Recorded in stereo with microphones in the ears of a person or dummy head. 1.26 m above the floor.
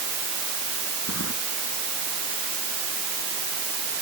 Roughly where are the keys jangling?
Left.